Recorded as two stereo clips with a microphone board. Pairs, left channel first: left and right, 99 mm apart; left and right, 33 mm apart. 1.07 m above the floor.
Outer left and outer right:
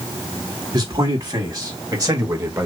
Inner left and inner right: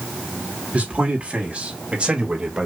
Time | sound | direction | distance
0.7 | a man speaking | 45° right (ahead or behind) | 2.5 m